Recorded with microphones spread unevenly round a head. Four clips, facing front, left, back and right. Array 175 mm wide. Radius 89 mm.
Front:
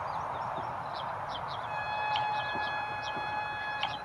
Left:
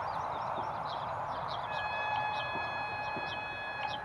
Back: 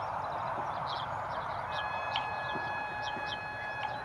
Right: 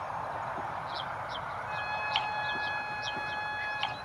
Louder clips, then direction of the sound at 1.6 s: Right 2 dB, front 2 dB; 15° left.